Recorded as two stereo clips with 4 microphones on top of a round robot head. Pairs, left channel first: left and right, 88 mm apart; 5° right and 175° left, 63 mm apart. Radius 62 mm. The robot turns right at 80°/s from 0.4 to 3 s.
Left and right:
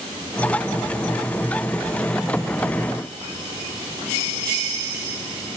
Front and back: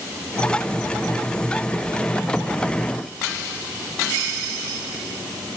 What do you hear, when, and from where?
Only background noise.